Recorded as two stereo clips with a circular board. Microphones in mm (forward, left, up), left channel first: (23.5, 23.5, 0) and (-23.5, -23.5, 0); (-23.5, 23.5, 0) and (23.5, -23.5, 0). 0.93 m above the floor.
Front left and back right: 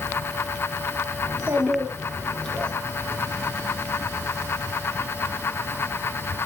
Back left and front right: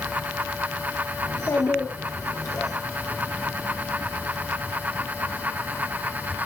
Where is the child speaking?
175° left, 1.6 m; by 2.7 s 115° left, 2 m.